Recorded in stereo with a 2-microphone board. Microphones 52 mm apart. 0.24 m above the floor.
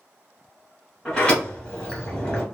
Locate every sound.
1.1 s a sliding door: 20° left (ahead or behind), 1.6 m